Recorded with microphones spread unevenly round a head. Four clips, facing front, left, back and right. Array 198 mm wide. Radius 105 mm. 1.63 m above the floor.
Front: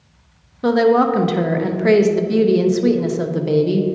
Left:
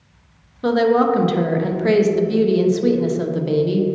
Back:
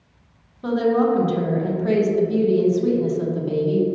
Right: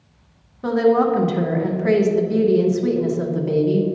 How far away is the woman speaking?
About 0.7 m.